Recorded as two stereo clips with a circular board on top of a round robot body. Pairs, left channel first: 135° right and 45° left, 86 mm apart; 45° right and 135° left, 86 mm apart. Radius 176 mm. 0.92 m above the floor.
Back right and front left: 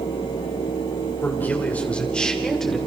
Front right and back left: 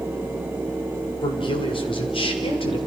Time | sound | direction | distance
1.2 | a man speaking | 65° right | 3.5 m